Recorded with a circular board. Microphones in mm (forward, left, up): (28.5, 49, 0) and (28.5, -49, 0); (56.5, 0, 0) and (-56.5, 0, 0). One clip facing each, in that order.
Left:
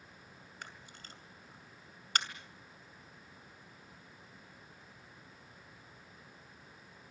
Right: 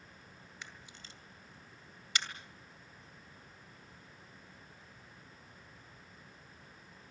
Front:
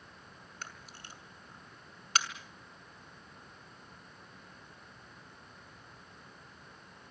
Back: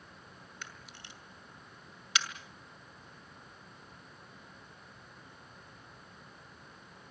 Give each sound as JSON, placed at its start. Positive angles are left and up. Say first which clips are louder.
{"t": 0.6, "sound": "a camera shutter", "louder": "left 2 dB, front 3 dB", "azimuth_deg": 50, "distance_m": 2.5}